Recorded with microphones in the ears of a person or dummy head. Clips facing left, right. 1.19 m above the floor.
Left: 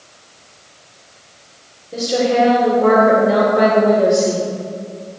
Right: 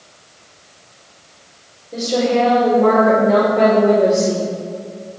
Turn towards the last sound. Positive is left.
turn(degrees=15)  # may be behind; listen again after turning